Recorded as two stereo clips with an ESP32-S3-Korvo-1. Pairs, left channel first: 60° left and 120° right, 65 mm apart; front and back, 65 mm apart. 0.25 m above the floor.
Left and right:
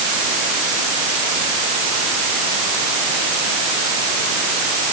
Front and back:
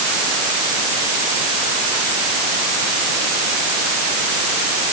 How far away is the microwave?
No microwave in this recording.